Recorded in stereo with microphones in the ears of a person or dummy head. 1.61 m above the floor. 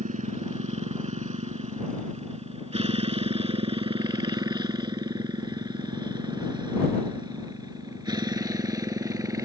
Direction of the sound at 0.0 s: 35° right (ahead or behind).